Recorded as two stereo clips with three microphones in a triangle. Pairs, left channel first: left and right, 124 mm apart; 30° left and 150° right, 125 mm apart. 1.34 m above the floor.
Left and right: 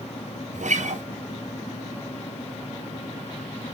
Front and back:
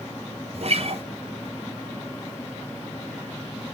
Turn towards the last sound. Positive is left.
turn(degrees=-110)